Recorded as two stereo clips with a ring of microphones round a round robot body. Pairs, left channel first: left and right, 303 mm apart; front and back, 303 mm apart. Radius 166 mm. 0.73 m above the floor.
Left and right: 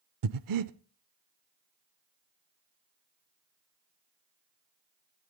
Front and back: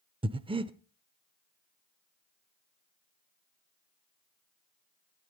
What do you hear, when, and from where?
0.2 s breathing: 105° right, 0.7 m